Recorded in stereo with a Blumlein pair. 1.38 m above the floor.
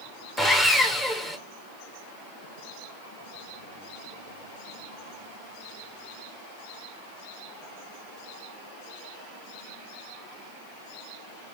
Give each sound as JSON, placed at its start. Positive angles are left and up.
{"t": 0.4, "sound": "sawing", "azimuth_deg": 10, "distance_m": 1.1}